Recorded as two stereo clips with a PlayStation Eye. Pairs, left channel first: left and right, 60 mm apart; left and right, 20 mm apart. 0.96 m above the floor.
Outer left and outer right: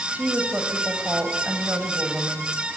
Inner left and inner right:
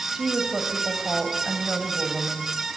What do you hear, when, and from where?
0.1 s a woman speaking: 25° right (ahead or behind), 6 m